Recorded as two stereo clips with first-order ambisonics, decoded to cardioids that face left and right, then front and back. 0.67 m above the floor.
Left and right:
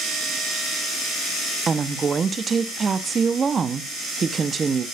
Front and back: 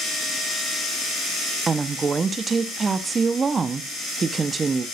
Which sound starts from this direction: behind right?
A woman speaking, at 1.7 s.